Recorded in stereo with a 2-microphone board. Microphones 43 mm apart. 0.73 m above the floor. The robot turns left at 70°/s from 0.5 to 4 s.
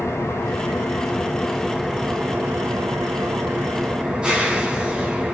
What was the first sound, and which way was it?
An engine running, 90° left.